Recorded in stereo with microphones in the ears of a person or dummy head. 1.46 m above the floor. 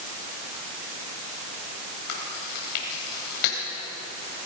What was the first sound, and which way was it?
Chewing, 70° left (ahead or behind).